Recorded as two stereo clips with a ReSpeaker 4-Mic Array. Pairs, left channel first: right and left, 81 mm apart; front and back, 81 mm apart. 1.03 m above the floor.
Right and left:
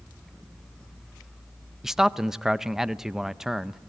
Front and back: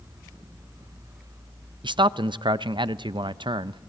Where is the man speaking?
175° left, 0.5 m.